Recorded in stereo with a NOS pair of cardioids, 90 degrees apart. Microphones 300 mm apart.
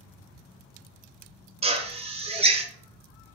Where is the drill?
20° right, 0.6 m.